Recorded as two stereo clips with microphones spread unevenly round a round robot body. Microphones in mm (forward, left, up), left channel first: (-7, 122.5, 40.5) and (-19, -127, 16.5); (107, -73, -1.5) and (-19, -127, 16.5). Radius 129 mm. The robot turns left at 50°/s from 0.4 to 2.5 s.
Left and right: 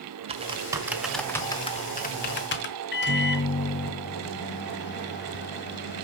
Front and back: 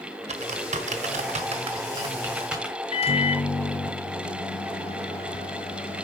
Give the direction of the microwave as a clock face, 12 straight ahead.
10 o'clock.